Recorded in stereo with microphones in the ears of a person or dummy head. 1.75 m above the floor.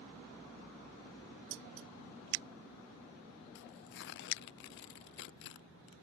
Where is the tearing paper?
55° left (ahead or behind).